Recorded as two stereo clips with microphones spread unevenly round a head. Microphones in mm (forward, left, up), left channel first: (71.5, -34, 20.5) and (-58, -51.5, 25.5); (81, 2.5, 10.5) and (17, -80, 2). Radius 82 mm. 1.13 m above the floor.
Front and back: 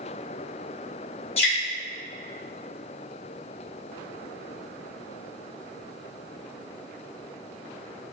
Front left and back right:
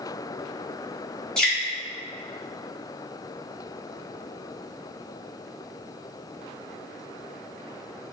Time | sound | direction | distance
1.4 | dripping | 25° right | 1.9 m